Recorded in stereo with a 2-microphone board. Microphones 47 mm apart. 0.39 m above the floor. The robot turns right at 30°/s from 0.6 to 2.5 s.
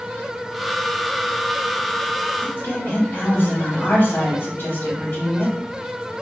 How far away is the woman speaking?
About 1.9 m.